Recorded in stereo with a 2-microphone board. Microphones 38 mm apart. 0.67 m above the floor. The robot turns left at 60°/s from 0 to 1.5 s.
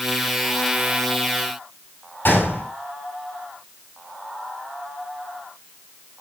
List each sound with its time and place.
2.2 s a gunshot: 65° left (ahead or behind), 4.5 m